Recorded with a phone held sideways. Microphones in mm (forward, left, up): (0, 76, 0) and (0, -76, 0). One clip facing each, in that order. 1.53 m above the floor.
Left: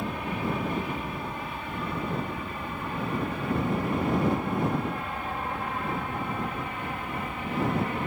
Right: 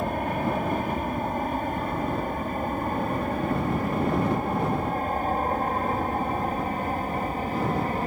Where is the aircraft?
50° right (ahead or behind); by 8.1 s 40° right (ahead or behind).